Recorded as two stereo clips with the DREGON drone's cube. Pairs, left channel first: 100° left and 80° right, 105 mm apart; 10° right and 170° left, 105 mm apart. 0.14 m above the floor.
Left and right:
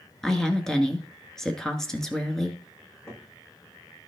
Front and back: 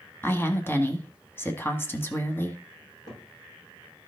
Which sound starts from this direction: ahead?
A woman speaking, at 0.2 s.